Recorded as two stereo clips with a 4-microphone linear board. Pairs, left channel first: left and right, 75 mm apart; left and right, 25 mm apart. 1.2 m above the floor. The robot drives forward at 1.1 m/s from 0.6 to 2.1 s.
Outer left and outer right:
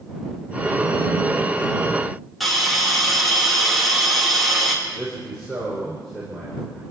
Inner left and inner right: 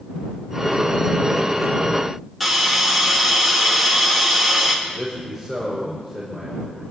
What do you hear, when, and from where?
2.4 s a hiss: centre (ahead or behind), 3.5 m
4.8 s a man speaking: 5° left (ahead or behind), 5.5 m